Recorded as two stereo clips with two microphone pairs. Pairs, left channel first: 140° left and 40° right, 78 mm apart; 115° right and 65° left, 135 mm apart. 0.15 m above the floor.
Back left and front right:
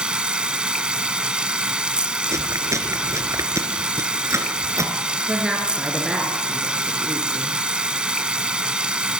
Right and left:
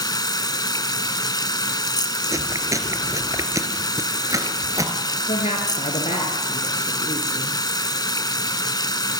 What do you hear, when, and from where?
0.0 s running water: 105° right, 0.7 m
2.3 s chewing: 5° left, 1.8 m
5.3 s a woman speaking: 115° right, 2.5 m